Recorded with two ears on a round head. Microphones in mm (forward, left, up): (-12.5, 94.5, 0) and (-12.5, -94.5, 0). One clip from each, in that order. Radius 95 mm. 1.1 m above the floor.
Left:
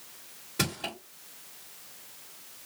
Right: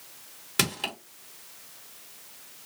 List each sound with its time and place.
0.6 s crushing: 60° right (ahead or behind), 1.5 m